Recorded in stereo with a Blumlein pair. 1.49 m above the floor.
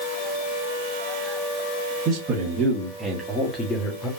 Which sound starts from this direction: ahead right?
A man speaking, at 2.0 s.